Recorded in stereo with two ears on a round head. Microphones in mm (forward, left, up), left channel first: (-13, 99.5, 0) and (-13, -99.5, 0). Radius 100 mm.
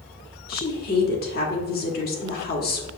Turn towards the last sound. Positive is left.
turn(degrees=45)  # may be behind; listen again after turning